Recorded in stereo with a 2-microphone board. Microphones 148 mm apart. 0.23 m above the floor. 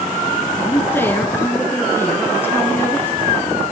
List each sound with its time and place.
0.6 s a man speaking: 15° left (ahead or behind), 3 m